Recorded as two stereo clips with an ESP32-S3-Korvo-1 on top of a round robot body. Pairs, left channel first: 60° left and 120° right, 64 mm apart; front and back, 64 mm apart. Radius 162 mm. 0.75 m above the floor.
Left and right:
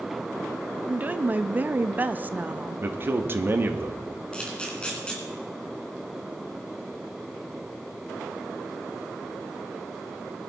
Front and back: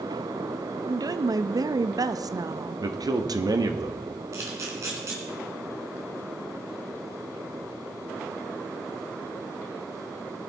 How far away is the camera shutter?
About 3 m.